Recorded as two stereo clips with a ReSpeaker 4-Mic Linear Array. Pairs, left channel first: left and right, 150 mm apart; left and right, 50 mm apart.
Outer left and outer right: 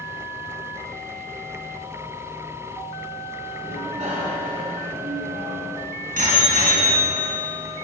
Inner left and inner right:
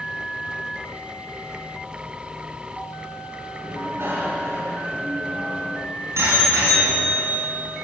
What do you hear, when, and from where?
3.6 s a bicycle bell: 55° right (ahead or behind), 4 m; by 7.4 s 75° right (ahead or behind), 6.5 m